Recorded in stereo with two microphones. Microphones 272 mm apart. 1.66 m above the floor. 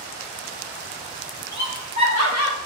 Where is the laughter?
70° left (ahead or behind), 1.3 m; by 2.6 s 60° left (ahead or behind), 0.8 m.